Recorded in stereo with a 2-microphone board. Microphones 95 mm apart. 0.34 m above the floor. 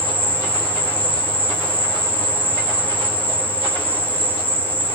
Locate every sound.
0.0 s an insect: 20° right (ahead or behind), 3 m